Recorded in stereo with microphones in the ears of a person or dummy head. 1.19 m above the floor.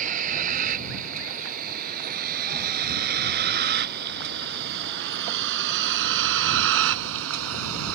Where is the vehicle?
40° right (ahead or behind); by 8.0 s 80° right.